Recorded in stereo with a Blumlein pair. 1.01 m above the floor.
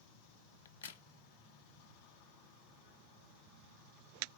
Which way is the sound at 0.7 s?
65° left.